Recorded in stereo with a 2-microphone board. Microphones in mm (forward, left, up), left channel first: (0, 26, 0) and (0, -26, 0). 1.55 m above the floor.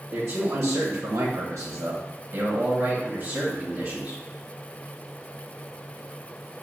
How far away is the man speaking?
About 1.0 m.